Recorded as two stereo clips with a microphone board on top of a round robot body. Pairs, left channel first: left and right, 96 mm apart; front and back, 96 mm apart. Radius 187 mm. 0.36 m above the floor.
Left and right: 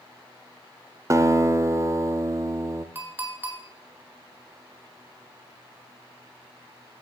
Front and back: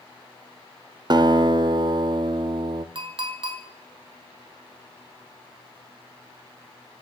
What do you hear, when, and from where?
1.1 s a guitar: 145° right, 0.6 m
3.0 s a clink: 155° right, 1.6 m